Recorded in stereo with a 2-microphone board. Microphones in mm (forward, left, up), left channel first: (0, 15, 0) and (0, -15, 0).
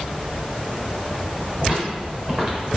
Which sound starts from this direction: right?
Footsteps, at 1.6 s.